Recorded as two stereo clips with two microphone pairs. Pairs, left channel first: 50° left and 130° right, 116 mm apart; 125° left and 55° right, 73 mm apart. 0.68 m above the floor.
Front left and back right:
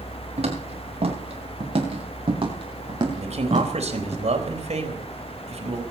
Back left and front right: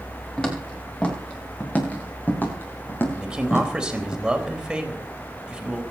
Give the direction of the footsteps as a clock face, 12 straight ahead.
5 o'clock.